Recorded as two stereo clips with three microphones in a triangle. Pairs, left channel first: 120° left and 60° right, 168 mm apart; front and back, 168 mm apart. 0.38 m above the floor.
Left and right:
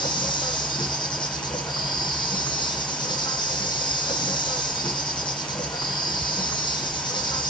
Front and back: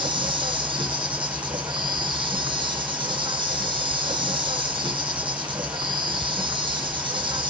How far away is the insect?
About 0.8 m.